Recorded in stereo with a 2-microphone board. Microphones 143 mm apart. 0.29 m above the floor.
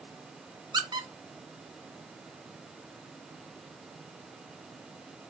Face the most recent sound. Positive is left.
turn(degrees=-30)  # may be behind; listen again after turning